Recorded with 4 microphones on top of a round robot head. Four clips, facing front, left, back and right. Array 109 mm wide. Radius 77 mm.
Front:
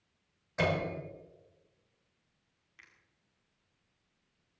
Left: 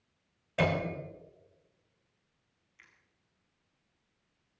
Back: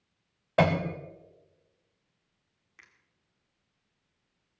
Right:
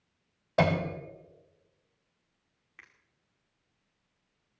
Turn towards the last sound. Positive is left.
turn(degrees=-110)